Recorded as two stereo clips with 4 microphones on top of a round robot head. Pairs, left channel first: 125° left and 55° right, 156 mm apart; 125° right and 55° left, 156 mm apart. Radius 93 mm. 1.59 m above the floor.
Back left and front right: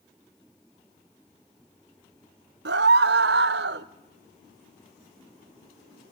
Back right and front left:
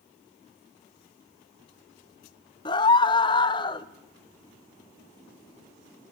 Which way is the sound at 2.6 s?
65° right.